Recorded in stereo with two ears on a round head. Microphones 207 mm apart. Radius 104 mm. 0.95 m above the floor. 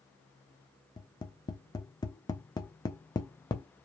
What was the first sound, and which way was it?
Tapping, 15° left (ahead or behind).